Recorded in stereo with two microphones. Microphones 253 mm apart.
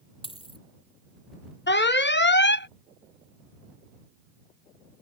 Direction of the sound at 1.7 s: 45° left (ahead or behind).